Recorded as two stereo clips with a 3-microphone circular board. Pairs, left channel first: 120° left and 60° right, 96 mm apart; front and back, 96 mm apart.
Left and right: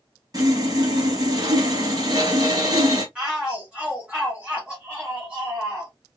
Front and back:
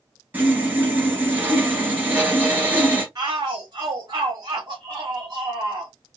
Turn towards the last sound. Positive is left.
turn(degrees=-140)